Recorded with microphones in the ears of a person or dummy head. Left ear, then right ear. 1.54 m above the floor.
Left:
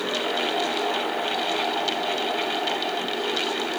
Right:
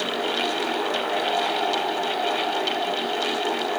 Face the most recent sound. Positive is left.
No sound to turn to.